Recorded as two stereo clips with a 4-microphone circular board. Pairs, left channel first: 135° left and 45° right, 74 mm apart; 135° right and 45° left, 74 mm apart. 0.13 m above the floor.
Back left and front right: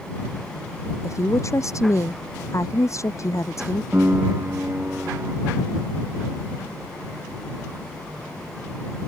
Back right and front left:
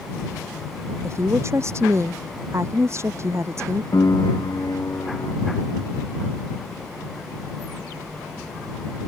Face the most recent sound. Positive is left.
turn(degrees=-100)